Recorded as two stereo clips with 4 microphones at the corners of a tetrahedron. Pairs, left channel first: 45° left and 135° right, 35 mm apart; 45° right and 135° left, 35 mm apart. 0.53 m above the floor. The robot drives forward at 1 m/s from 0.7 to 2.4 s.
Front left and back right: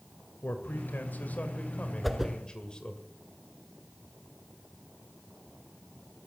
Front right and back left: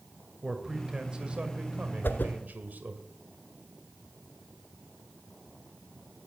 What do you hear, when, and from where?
0.4 s a man speaking: 60° left, 2.5 m; by 3.0 s 105° left, 2.5 m
2.0 s a whoosh: 50° right, 1.2 m; by 2.3 s 60° right, 1.0 m